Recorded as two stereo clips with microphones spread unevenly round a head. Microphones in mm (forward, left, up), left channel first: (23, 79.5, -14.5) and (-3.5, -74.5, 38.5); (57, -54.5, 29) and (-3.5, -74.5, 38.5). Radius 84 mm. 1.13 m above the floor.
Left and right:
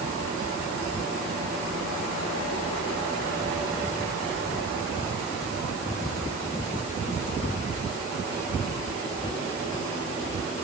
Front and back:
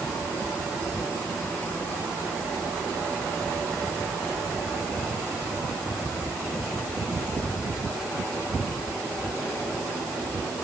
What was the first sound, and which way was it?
Only background noise.